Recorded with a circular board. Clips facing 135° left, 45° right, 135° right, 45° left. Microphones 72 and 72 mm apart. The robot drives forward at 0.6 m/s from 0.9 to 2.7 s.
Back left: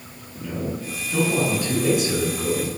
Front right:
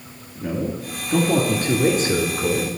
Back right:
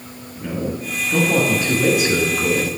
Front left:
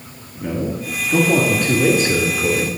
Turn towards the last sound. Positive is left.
turn(degrees=-85)